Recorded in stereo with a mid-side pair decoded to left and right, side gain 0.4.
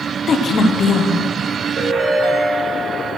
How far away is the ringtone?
About 1.6 m.